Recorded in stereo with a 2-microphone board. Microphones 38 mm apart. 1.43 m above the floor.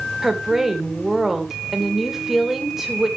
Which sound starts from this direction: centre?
A woman speaking, at 0.2 s.